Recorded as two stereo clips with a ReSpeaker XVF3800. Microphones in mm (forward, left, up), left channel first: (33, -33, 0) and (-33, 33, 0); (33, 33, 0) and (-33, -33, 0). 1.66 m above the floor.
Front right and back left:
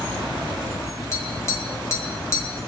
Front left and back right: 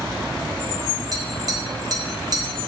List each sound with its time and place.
1.1 s tapping: 95° right, 2.5 m